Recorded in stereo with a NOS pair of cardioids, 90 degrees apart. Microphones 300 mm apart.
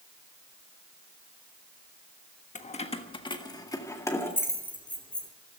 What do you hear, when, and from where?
2.5 s keys jangling: 25° left, 1.3 m; by 5.3 s 5° left, 2.5 m